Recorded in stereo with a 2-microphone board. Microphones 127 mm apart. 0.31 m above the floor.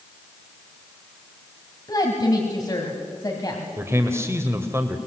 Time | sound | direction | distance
1.9 | a woman speaking | 30° left (ahead or behind) | 2.5 m
3.8 | a man speaking | 20° right (ahead or behind) | 1.5 m